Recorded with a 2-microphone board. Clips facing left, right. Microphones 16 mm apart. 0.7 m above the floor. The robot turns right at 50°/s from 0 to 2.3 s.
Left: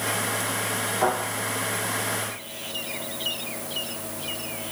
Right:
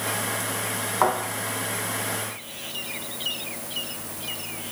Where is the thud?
65° right (ahead or behind), 1.8 m; by 1.1 s 70° right (ahead or behind), 1.8 m.